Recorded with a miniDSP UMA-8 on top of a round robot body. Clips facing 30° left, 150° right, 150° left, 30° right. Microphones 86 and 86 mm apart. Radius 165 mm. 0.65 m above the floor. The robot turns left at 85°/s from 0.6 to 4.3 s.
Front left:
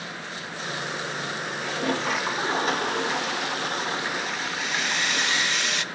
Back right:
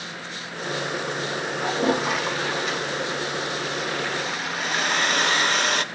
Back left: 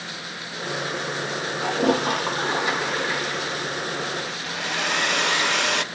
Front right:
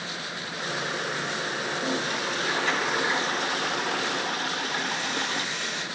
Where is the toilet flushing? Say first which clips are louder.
Back right 5 dB, back left 11 dB; 165° left, 2.5 m; by 5.5 s 65° right, 2.5 m.